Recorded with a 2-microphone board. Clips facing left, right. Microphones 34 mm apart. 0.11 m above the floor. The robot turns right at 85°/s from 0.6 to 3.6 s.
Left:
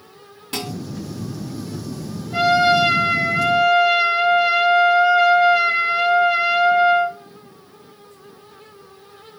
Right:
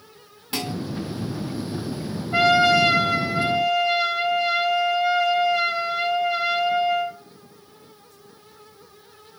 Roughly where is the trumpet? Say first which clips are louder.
Left 1 dB; ahead.